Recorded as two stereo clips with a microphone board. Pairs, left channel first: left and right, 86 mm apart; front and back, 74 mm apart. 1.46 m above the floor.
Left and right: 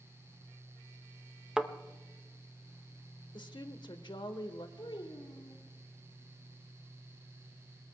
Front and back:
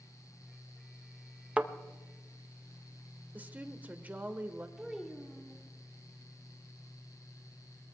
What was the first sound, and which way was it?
A thud, 155° right.